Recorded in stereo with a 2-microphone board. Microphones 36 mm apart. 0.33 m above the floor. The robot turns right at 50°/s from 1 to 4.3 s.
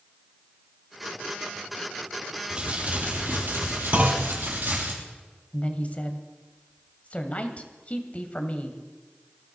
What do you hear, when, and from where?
2.5 s crumpling: 155° right, 5.5 m; by 4.9 s 65° right, 5.5 m
3.9 s a clunk: 30° right (ahead or behind), 1.4 m; by 4.3 s 45° right (ahead or behind), 1.4 m
5.5 s a woman speaking: 35° left (ahead or behind), 1.8 m